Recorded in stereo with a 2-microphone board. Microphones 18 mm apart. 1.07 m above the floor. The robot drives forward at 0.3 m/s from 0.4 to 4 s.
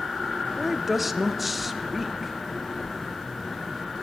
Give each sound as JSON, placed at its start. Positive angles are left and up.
{"t": 0.6, "sound": "a woman speaking", "side_deg": -10, "distance_m": 0.5}